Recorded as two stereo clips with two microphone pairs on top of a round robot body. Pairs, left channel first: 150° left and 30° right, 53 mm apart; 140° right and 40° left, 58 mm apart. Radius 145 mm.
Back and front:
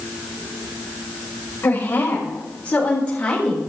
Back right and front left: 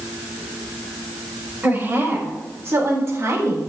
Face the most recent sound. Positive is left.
turn(degrees=80)